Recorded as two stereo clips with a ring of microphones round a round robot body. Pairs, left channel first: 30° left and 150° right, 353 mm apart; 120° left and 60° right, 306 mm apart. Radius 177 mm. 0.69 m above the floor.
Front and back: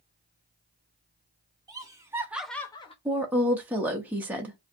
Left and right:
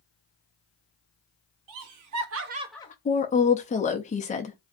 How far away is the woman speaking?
About 0.5 m.